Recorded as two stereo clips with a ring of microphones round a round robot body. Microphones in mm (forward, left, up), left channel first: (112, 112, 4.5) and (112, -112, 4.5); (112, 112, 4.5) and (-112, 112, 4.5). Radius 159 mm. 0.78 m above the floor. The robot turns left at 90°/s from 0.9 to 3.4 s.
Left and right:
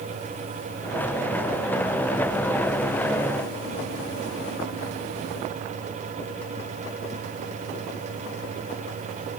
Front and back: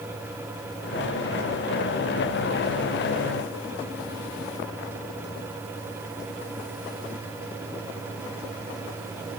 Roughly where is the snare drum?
I don't hear a snare drum.